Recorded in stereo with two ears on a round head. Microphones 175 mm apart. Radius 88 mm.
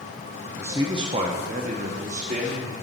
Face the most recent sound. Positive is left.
turn(degrees=-35)  # may be behind; listen again after turning